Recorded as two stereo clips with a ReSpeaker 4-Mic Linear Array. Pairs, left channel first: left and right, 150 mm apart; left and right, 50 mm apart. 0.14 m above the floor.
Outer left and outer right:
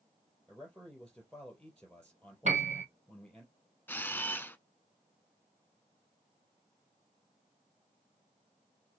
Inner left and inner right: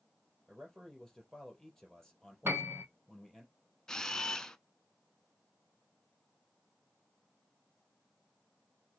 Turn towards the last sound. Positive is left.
turn(degrees=15)  # may be behind; listen again after turning